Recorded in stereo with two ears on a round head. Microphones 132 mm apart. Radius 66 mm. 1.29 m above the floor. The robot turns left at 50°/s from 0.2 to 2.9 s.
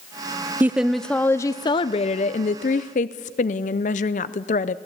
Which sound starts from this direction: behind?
A woman speaking, at 0.6 s.